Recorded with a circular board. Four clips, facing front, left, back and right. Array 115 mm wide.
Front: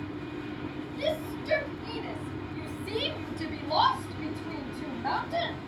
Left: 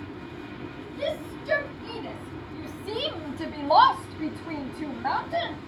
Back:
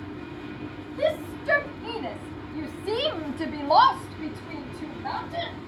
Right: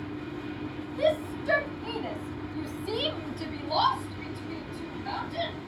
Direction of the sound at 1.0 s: 145° right.